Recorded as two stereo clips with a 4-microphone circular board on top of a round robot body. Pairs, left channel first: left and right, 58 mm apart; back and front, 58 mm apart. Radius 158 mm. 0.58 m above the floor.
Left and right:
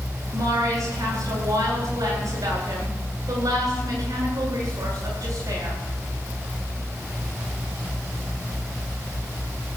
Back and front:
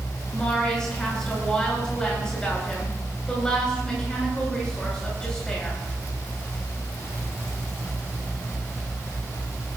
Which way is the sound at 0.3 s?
105° right.